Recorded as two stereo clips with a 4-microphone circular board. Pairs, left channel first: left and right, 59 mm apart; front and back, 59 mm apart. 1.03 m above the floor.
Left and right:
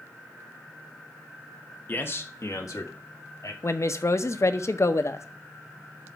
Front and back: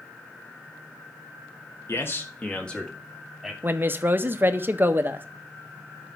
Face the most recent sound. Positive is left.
turn(degrees=125)